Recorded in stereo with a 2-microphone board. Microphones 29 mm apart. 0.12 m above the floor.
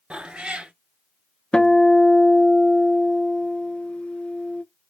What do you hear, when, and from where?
0.1 s a cat meowing: 40° right (ahead or behind), 0.8 m
1.5 s a guitar: 45° left (ahead or behind), 0.6 m